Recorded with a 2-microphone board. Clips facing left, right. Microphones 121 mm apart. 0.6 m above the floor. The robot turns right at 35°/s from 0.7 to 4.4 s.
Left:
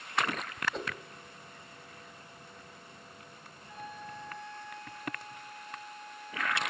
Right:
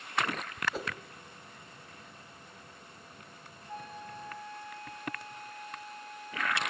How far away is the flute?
About 7 m.